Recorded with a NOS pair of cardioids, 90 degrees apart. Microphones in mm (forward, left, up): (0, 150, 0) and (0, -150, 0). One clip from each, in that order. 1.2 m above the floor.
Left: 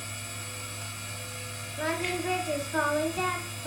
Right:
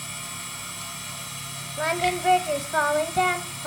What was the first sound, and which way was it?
A machine running, 70° right.